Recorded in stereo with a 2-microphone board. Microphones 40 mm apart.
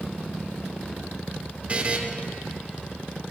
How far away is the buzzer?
About 0.6 m.